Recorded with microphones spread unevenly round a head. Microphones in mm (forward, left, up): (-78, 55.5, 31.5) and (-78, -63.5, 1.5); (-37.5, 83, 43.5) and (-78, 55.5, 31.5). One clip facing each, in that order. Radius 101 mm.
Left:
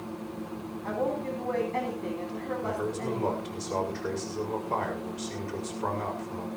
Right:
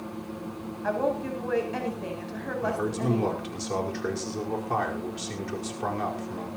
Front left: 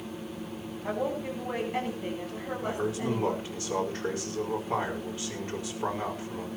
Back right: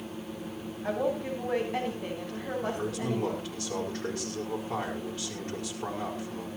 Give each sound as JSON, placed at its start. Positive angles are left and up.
{"t": 0.8, "sound": "a woman speaking", "azimuth_deg": -70, "distance_m": 9.0}
{"t": 2.6, "sound": "a man speaking", "azimuth_deg": -50, "distance_m": 5.0}